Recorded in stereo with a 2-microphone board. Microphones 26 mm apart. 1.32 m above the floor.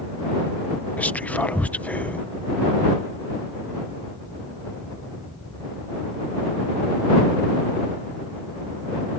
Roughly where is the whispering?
Left.